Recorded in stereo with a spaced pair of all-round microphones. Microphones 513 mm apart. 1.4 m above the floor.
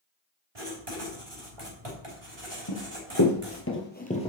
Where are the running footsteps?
50° left (ahead or behind), 2.5 m; by 4.3 s 10° left (ahead or behind), 2.5 m.